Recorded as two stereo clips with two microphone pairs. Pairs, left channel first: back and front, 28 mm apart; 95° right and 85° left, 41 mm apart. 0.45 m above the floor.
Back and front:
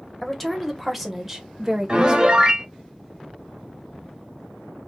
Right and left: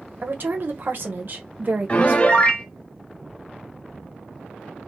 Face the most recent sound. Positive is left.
turn(degrees=-50)